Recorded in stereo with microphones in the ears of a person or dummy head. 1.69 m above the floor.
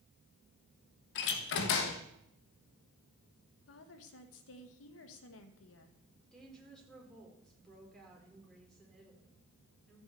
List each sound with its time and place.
1.1 s a door slam: 55° left (ahead or behind), 1.3 m
3.7 s a woman speaking: 65° left (ahead or behind), 1.7 m
6.3 s a woman speaking: centre (ahead or behind), 5 m